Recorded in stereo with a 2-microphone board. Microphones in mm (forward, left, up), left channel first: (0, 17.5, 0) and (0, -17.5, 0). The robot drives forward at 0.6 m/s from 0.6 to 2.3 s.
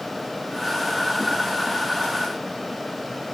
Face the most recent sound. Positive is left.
No sound to turn to.